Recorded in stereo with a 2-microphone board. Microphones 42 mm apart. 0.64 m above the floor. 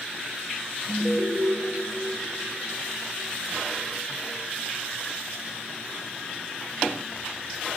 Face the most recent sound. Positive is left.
turn(degrees=50)  # may be behind; listen again after turning